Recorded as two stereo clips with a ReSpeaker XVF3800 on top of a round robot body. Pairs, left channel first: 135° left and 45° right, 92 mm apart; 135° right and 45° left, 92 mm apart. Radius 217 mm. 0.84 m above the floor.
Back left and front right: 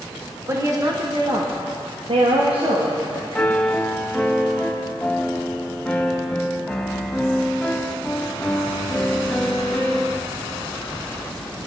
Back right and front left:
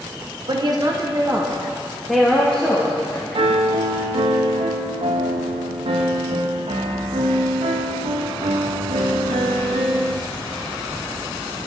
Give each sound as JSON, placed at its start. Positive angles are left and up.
{"t": 0.5, "sound": "a woman speaking", "azimuth_deg": 10, "distance_m": 2.0}
{"t": 3.4, "sound": "a piano", "azimuth_deg": 55, "distance_m": 1.4}